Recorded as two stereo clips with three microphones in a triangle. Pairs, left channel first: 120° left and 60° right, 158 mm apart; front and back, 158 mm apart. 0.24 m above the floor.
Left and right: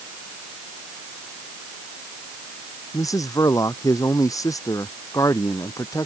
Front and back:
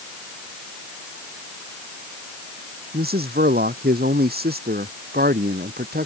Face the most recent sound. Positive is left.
turn(degrees=-170)